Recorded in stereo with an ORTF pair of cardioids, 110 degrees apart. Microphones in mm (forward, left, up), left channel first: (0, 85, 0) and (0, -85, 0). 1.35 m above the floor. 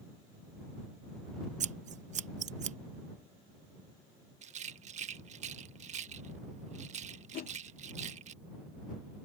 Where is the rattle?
45° right.